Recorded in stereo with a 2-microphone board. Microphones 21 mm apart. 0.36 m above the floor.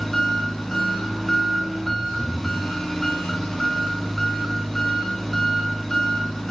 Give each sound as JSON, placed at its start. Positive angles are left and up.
{"t": 0.0, "sound": "an engine running", "side_deg": 5, "distance_m": 2.0}